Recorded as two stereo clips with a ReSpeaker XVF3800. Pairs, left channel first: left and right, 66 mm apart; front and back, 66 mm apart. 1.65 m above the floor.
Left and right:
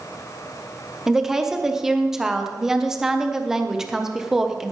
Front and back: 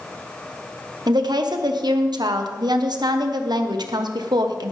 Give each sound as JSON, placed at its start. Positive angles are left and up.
{"t": 1.1, "sound": "a woman speaking", "azimuth_deg": -175, "distance_m": 1.2}